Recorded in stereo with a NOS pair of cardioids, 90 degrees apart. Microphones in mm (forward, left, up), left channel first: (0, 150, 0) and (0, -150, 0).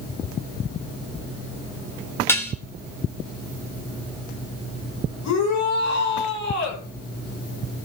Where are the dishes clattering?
5° left, 3 m.